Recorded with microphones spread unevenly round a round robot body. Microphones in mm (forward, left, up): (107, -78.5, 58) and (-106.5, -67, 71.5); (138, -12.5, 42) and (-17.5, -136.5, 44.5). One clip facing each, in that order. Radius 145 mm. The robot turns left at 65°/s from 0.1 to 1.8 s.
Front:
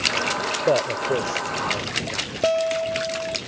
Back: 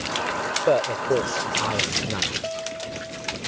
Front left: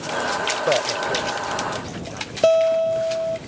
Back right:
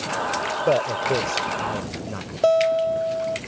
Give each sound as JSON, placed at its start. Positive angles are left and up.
{"t": 0.7, "sound": "a man speaking", "azimuth_deg": -75}
{"t": 2.4, "sound": "a guitar", "azimuth_deg": -20}